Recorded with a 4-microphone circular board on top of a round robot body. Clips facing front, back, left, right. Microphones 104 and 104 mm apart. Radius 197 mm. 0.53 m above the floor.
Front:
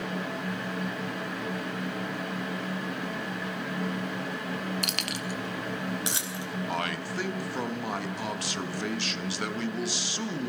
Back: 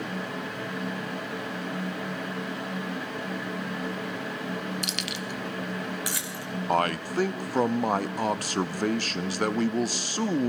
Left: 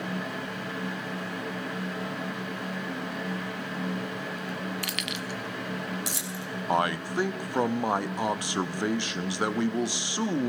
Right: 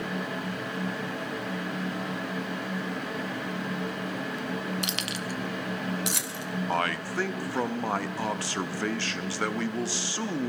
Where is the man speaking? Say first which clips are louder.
Back 10 dB, left 4 dB; 155° left, 1.0 m.